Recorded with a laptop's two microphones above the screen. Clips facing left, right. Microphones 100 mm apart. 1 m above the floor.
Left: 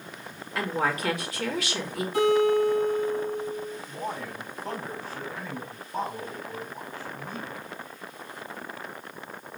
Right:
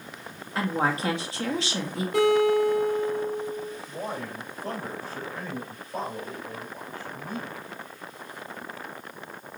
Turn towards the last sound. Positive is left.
turn(degrees=-45)  # may be behind; listen again after turning